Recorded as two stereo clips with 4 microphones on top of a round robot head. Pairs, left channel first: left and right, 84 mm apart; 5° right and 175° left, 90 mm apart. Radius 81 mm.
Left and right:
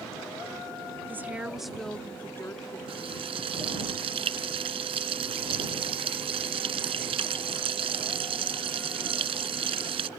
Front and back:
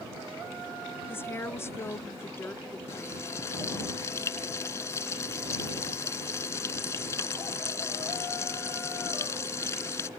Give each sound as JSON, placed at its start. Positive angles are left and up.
{"t": 1.1, "sound": "a woman speaking", "azimuth_deg": -50}
{"t": 2.9, "sound": "frying", "azimuth_deg": -75}